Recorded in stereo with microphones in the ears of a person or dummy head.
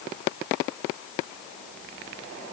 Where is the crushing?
I don't hear crushing.